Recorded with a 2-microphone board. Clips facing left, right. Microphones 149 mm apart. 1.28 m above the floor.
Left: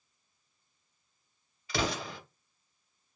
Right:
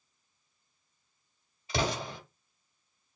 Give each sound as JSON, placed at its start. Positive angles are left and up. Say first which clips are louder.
{"t": 1.7, "sound": "an explosion", "louder": "right 1 dB", "side_deg": -25, "distance_m": 1.7}